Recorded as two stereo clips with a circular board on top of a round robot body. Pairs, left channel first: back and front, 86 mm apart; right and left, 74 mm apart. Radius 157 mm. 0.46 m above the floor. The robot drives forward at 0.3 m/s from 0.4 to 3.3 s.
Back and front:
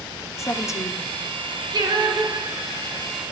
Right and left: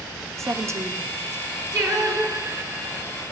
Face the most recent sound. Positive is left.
turn(degrees=50)